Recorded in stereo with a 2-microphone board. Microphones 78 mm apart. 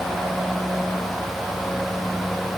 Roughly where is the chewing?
No chewing in this recording.